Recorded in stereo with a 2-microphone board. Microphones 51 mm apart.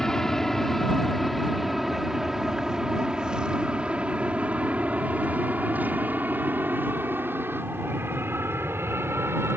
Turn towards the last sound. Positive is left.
turn(degrees=-60)  # may be behind; listen again after turning